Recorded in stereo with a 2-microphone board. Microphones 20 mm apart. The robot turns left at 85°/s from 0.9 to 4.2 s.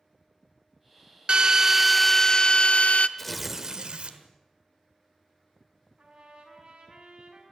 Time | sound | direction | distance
1.3 | a drill | 120° right | 0.6 m
3.2 | tearing paper | 20° left | 1.6 m
6.0 | a trumpet | 45° right (ahead or behind) | 4.5 m